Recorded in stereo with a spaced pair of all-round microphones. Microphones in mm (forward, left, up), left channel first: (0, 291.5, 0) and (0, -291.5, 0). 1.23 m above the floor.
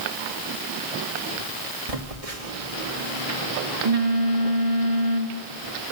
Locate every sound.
1.9 s a phone buzzing: 70° right (ahead or behind), 2.5 m